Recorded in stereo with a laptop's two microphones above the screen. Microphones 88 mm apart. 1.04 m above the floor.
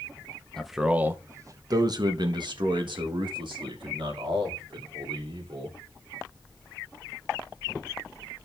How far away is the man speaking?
About 0.6 m.